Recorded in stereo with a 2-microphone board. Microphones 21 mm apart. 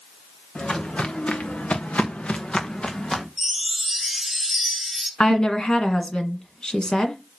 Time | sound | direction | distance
0.6 | footsteps | 55° left (ahead or behind) | 2.5 m
3.4 | a chime | 10° right (ahead or behind) | 3 m
5.2 | a woman speaking | 35° left (ahead or behind) | 1.5 m